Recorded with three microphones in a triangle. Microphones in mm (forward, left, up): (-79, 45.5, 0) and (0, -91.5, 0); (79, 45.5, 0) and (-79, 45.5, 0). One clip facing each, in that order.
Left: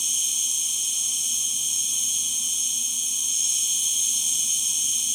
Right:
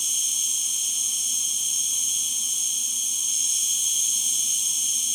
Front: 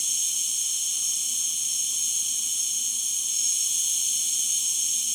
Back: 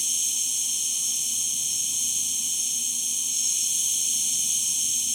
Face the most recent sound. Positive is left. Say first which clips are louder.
# left 1 dB, back 4 dB
turn(degrees=-110)